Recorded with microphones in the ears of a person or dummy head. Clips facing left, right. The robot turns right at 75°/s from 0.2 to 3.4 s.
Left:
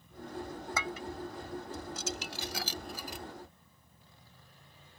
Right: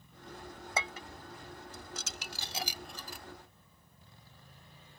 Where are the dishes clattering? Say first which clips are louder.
Even; 20° right (ahead or behind); by 3.2 s 30° left (ahead or behind).